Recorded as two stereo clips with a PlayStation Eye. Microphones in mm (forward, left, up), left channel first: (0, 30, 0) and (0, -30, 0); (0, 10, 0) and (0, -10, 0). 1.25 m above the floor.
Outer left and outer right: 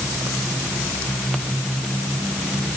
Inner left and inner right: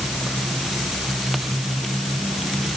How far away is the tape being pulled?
No tape being pulled in this recording.